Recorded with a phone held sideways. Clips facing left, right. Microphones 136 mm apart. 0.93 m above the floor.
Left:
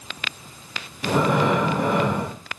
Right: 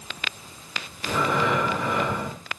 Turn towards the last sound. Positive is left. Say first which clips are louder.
# left 4 dB
turn(degrees=65)  # may be behind; listen again after turning